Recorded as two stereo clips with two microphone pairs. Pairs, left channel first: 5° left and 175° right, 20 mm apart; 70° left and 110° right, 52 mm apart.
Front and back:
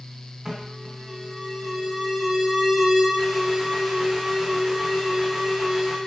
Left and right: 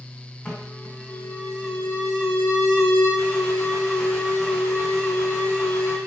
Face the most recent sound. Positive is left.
turn(degrees=140)